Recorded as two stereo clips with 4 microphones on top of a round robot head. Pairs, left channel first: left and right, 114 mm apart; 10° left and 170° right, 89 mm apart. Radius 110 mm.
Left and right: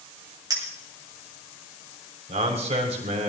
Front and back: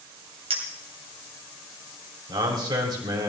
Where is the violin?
I don't hear a violin.